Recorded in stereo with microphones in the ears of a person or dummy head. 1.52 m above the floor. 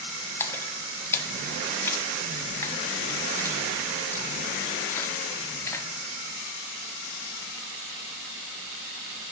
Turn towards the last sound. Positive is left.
turn(degrees=15)  # may be behind; listen again after turning